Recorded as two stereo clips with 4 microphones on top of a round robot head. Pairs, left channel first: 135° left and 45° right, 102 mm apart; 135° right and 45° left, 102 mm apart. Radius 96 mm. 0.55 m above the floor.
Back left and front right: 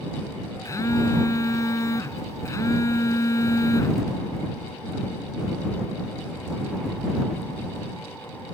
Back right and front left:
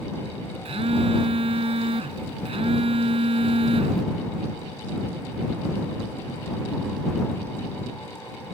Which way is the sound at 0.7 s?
75° left.